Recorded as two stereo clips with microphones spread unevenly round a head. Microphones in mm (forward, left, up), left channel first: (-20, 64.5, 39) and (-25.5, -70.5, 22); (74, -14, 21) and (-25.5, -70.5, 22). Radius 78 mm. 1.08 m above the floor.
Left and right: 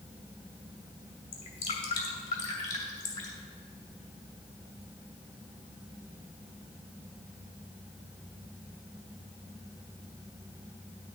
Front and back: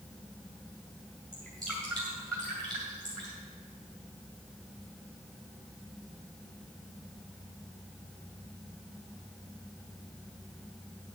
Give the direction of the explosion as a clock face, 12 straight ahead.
I don't hear an explosion.